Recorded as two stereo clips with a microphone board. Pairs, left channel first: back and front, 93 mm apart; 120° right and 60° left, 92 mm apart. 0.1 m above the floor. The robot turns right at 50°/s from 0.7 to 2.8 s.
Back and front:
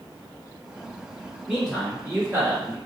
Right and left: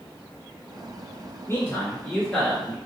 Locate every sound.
1.5 s a man speaking: 95° right, 1.5 m; by 2.8 s 30° right, 1.5 m